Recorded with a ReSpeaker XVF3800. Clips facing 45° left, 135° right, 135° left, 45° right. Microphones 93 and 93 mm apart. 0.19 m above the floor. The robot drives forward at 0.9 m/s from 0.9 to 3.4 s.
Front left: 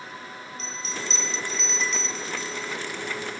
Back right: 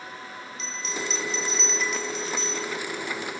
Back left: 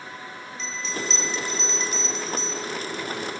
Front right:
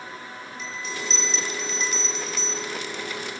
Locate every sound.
0.6 s a bell: 30° left; by 2.8 s 170° left